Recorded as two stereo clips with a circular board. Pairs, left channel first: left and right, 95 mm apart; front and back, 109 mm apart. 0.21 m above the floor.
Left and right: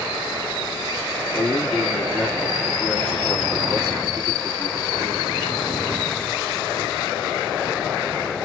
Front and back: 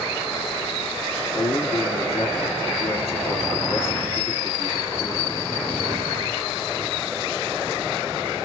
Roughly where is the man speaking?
Ahead.